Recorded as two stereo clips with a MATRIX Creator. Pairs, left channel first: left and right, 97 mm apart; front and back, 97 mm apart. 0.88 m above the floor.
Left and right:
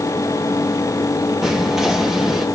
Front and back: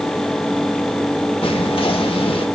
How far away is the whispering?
About 1.2 m.